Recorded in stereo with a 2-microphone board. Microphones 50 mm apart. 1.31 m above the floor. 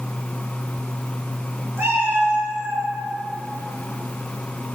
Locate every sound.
1.8 s a cat meowing: 50° right (ahead or behind), 5.5 m; by 2.9 s 65° right (ahead or behind), 5.5 m